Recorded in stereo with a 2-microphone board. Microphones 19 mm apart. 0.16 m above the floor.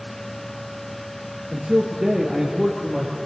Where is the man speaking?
50° right (ahead or behind), 2.5 m; by 3.1 s 25° right (ahead or behind), 4 m.